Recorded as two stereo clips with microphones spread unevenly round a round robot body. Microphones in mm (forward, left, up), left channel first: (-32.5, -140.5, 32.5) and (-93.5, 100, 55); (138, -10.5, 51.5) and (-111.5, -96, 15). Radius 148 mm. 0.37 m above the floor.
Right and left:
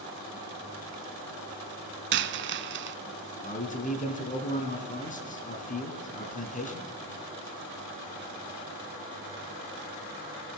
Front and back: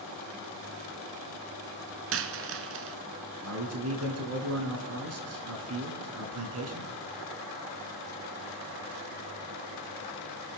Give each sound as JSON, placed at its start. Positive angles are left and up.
{"t": 2.1, "sound": "a dropped coin", "azimuth_deg": 150, "distance_m": 0.7}
{"t": 3.4, "sound": "a man speaking", "azimuth_deg": -135, "distance_m": 3.5}